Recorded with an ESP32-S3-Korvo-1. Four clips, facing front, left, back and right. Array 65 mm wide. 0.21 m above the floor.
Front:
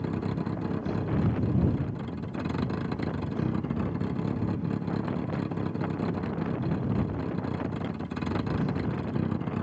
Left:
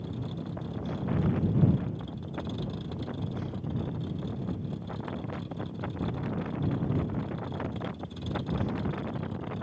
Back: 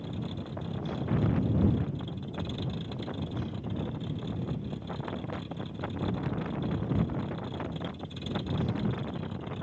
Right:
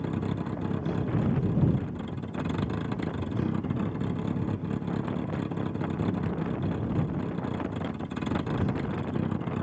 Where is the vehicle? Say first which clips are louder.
Right 6 dB, front 7 dB; 45° right.